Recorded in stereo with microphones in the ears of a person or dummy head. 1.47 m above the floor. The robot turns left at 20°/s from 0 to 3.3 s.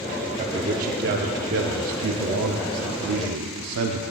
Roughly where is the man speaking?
Ahead right.